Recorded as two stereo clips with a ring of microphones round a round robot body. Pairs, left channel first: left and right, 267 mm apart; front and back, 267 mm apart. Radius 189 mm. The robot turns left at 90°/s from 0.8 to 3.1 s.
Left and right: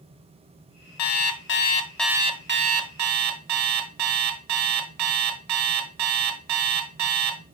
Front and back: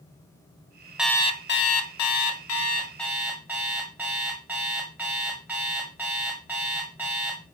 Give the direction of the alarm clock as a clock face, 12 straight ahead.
9 o'clock.